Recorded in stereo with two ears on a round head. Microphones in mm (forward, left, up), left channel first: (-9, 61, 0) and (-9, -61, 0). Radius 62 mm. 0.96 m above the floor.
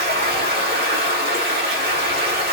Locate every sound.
0.0 s running water: 75° right (ahead or behind), 1.4 m